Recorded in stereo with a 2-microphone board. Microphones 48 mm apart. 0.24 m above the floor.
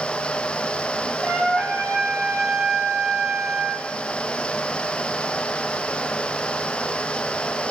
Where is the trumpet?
10° left (ahead or behind), 1.7 m.